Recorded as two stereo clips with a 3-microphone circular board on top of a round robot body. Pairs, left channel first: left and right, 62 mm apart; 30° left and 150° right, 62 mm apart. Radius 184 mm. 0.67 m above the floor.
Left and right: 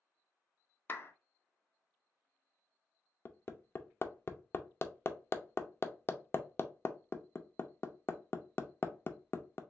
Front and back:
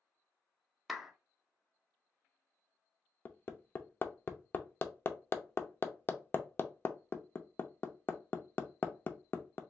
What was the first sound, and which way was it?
A clap, 120° left.